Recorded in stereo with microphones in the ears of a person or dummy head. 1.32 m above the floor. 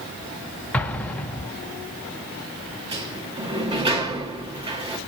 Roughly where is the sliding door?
Right.